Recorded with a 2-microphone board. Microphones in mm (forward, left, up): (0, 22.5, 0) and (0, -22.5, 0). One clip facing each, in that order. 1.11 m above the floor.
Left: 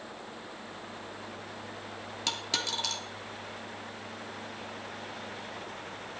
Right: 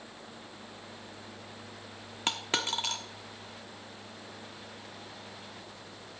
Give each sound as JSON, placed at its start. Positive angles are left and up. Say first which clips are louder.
{"t": 2.3, "sound": "a dropped coin", "louder": "right 2 dB", "side_deg": -35, "distance_m": 1.1}